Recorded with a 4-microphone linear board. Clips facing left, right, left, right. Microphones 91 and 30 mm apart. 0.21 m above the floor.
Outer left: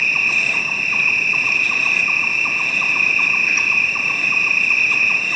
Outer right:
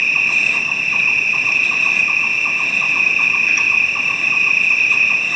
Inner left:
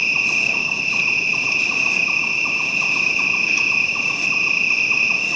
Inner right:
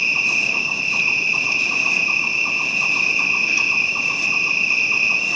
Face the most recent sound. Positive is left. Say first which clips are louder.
# outer right 1 dB, even
turn(degrees=5)  # may be behind; listen again after turning